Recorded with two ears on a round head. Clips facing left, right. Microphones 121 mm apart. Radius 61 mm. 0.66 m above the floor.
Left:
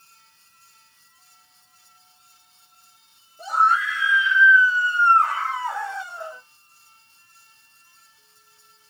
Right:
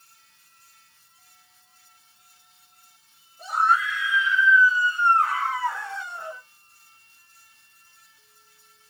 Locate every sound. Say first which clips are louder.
3.4 s a scream: left 2 dB; 60° left (ahead or behind), 2 m; by 6.4 s centre (ahead or behind), 1.2 m